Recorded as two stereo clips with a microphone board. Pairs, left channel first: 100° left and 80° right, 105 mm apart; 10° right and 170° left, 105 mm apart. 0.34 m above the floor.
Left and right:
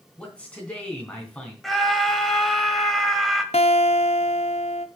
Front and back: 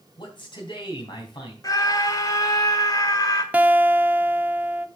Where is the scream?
15° left, 1.5 m.